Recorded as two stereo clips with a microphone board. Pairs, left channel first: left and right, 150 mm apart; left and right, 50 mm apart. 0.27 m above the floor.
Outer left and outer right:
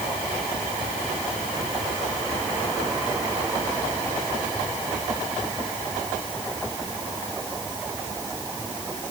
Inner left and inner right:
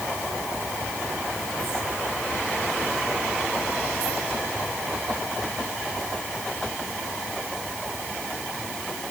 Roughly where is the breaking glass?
No breaking glass in this recording.